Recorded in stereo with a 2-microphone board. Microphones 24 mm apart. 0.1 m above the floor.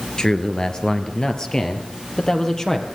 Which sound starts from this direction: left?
A man speaking, at 0.2 s.